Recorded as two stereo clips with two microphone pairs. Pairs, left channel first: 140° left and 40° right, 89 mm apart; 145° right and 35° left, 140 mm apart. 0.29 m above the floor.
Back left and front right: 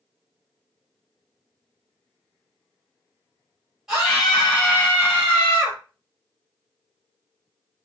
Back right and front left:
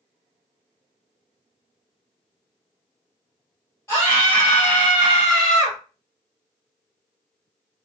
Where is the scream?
120° right, 1.4 m; by 5.8 s 125° left, 1.6 m.